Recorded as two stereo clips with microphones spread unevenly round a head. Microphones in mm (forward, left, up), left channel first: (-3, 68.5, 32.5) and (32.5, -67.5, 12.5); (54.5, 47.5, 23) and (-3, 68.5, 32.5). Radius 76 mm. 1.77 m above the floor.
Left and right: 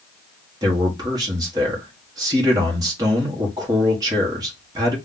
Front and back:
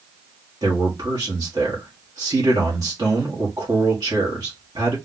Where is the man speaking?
145° right, 1.2 m.